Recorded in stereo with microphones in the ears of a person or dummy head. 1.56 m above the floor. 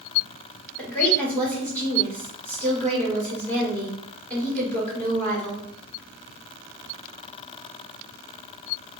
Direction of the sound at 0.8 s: 5° left (ahead or behind).